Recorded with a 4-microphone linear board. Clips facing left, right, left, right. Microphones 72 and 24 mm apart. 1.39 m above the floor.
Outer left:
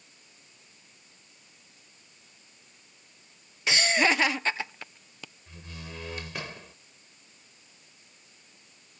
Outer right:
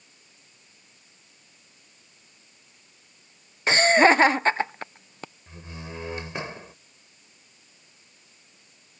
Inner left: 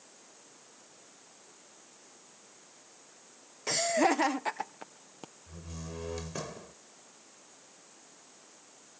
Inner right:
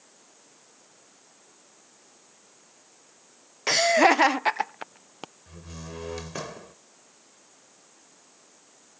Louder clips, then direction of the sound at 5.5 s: Outer right 2 dB, inner left 1 dB; 25° right (ahead or behind).